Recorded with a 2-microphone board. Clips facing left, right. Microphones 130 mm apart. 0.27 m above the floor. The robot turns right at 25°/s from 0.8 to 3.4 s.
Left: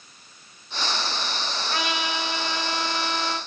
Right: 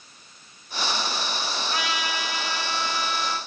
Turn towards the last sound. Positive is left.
turn(degrees=120)